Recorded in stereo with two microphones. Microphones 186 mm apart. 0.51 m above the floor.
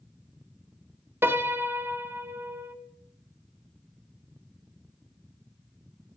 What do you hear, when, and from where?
1.2 s a piano: 10° right (ahead or behind), 0.8 m